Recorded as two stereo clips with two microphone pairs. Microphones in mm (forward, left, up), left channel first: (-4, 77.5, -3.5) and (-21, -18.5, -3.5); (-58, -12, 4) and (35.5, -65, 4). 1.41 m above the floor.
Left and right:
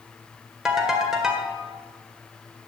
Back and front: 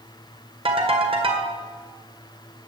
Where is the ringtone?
15° right, 1.8 m.